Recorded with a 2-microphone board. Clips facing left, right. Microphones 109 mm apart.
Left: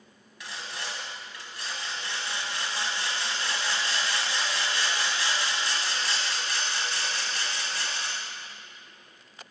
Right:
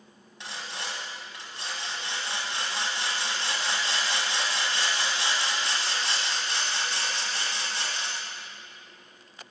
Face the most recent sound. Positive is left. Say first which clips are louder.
# right 1 dB
turn(degrees=-25)  # may be behind; listen again after turning